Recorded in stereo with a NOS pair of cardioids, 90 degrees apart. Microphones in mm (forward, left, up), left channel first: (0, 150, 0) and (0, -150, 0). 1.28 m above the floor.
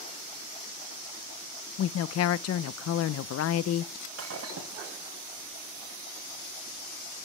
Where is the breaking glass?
55° right, 6 m.